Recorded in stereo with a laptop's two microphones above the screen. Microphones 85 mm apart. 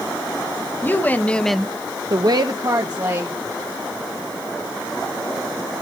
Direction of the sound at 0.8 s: 25° left (ahead or behind).